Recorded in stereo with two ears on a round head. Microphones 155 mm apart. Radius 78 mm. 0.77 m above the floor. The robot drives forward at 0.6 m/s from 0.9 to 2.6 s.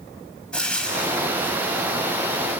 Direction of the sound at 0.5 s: 5° left (ahead or behind).